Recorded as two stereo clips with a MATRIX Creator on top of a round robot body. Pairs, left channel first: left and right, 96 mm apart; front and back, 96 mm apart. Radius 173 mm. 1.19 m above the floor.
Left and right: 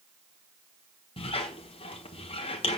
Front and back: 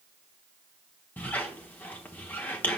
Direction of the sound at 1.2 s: 70° left.